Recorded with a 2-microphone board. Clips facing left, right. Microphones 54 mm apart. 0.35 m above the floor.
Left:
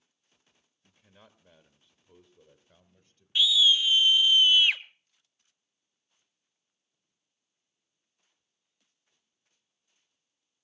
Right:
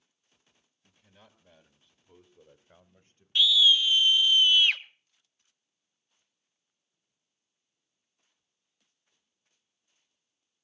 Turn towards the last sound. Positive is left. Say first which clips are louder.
# right 1 dB
turn(degrees=10)  # may be behind; listen again after turning